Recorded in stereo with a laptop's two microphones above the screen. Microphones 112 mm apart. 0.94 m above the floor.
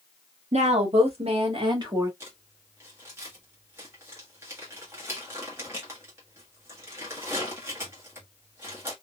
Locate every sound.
0.5 s a woman speaking: 80° right, 1.6 m; by 2.1 s 30° right (ahead or behind), 1.4 m
2.2 s crumpling: 20° right (ahead or behind), 1.3 m